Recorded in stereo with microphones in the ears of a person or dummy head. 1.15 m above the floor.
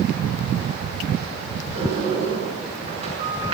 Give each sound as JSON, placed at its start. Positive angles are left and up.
{"t": 1.8, "sound": "a sliding door", "side_deg": -30, "distance_m": 7.5}